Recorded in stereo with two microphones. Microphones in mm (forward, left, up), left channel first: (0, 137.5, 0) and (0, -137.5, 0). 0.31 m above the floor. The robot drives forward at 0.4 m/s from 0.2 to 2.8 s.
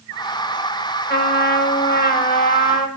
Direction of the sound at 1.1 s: 40° left (ahead or behind).